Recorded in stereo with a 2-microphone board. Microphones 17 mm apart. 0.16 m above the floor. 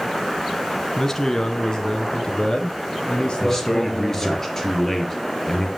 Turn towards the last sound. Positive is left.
turn(degrees=25)  # may be behind; listen again after turning